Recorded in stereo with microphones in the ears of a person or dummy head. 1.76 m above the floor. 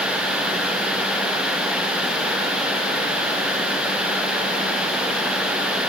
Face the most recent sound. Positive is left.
No sound to turn to.